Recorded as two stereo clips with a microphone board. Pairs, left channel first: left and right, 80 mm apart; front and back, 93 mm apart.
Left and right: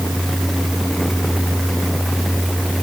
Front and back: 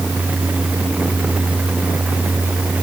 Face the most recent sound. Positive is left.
No sound to turn to.